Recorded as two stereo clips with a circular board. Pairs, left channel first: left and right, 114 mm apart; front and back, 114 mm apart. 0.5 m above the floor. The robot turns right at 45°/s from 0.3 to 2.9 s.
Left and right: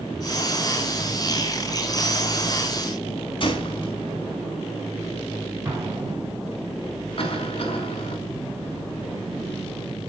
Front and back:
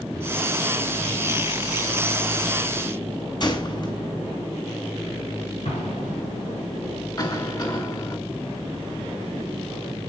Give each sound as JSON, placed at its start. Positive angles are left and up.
{"t": 3.4, "sound": "a gunshot", "azimuth_deg": 50, "distance_m": 4.0}
{"t": 5.7, "sound": "an explosion", "azimuth_deg": -25, "distance_m": 7.0}
{"t": 7.2, "sound": "a cough", "azimuth_deg": 55, "distance_m": 5.0}